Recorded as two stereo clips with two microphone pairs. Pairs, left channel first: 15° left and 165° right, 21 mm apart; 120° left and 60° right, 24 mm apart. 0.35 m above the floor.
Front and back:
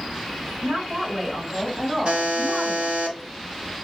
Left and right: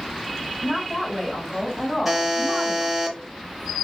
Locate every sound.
0.6 s a woman speaking: straight behind, 1.7 m; by 3.0 s 175° right, 3.5 m
2.0 s a buzzer: 135° right, 1.2 m